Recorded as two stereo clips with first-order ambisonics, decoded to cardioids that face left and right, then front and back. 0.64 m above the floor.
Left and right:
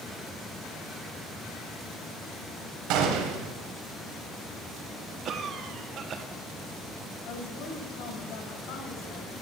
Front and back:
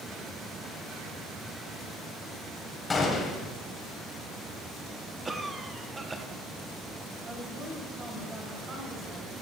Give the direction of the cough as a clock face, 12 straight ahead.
4 o'clock.